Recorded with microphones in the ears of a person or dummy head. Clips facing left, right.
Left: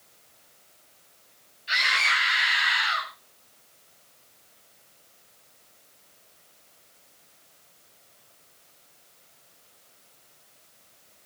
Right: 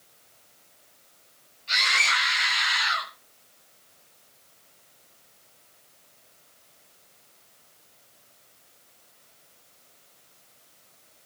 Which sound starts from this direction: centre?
A scream, at 1.7 s.